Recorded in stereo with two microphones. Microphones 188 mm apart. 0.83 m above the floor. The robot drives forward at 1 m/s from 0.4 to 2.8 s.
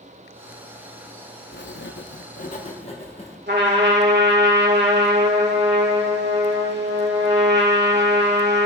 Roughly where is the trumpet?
Right.